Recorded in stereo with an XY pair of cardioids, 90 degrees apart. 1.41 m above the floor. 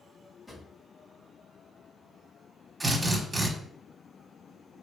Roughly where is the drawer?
Ahead left.